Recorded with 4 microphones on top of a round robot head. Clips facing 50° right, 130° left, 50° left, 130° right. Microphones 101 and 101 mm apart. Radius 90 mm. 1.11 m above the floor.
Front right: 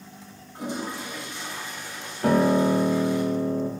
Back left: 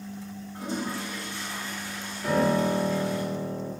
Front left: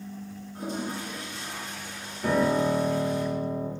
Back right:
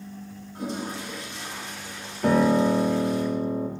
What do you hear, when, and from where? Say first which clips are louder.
0.6 s a toilet flushing: front right 1 dB, back right 1 dB; 120° right, 1.9 m
2.2 s a piano: front right 4 dB, back right 4 dB; 95° right, 1.1 m